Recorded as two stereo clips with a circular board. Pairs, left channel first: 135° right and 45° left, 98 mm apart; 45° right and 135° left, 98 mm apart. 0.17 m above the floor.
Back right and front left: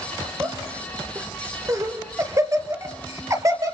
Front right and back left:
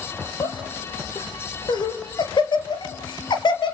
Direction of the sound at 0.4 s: 10° right.